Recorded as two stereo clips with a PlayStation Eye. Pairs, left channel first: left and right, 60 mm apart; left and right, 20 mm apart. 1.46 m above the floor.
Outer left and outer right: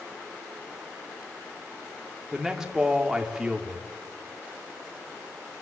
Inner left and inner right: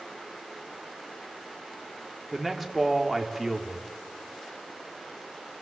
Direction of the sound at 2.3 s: 10° right (ahead or behind).